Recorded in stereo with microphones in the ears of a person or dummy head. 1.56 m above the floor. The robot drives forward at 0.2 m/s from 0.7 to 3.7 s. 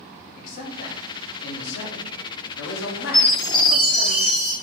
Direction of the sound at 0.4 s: 55° left (ahead or behind).